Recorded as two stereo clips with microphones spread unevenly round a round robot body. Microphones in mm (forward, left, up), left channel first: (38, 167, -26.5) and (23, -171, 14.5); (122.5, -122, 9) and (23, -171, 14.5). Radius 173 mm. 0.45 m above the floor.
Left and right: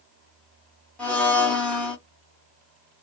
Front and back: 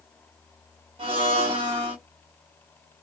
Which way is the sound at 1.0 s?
165° left.